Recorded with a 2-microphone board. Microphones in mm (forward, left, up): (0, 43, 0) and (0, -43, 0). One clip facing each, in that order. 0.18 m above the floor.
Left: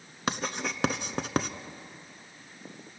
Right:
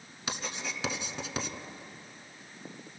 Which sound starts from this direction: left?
Writing, at 0.3 s.